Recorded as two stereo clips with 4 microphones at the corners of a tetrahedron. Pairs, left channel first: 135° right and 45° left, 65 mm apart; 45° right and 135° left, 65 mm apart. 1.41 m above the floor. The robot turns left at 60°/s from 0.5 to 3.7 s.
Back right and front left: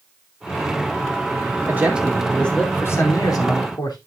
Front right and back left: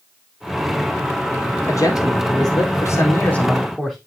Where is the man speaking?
10° right, 4 m; by 4.0 s 135° right, 4 m.